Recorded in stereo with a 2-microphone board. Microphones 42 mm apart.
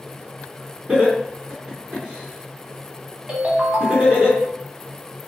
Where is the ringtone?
30° right (ahead or behind), 0.9 m.